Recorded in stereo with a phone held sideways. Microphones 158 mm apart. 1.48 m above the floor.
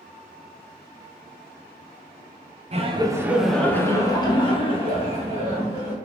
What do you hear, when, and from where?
2.7 s laughter: 40° right (ahead or behind), 0.6 m; by 5.9 s 45° left (ahead or behind), 2 m